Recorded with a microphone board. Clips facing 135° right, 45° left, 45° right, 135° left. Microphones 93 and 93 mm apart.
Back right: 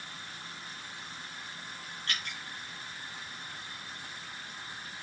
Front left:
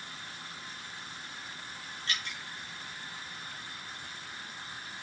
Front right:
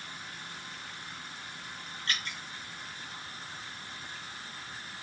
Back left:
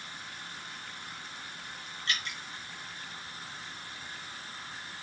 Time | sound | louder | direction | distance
2.1 | dripping | even, back left 1 dB | 95° right | 4 m